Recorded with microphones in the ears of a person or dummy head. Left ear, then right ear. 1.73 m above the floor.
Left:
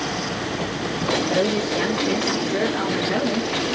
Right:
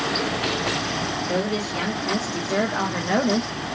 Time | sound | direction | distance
1.3 | a woman speaking | 55° right (ahead or behind) | 1.4 m